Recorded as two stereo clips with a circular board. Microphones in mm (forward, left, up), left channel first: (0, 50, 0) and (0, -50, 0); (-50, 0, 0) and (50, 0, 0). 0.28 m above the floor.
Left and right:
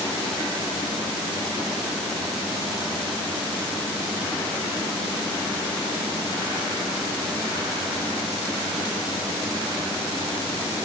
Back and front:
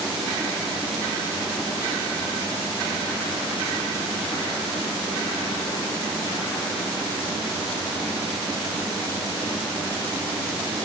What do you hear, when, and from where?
Only background noise.